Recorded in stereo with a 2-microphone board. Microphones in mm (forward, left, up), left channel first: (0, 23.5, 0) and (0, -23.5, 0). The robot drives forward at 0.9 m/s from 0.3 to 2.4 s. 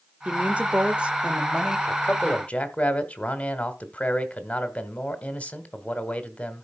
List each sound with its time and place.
0.2 s a woman speaking: 30° right (ahead or behind), 0.8 m; by 1.8 s 15° right (ahead or behind), 1.5 m
1.9 s a man speaking: 35° left (ahead or behind), 1.1 m; by 6.6 s 30° left (ahead or behind), 1.2 m